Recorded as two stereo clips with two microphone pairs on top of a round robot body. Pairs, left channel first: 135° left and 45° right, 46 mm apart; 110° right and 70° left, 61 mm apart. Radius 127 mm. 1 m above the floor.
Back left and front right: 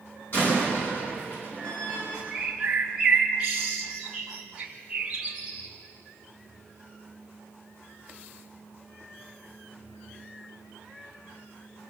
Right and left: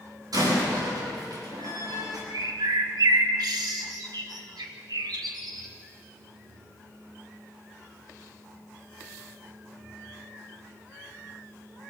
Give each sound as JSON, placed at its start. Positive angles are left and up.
{"t": 0.3, "sound": "a door slam", "azimuth_deg": 85, "distance_m": 8.5}
{"t": 2.3, "sound": "a bird", "azimuth_deg": 45, "distance_m": 0.6}